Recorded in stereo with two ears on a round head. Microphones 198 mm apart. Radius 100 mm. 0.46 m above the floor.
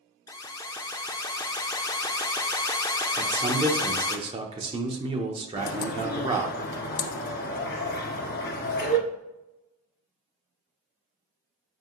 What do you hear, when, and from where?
0.3 s an alarm: 15° left (ahead or behind), 0.5 m
3.2 s a man speaking: 25° right (ahead or behind), 0.7 m
5.6 s a bird: 50° left (ahead or behind), 1.2 m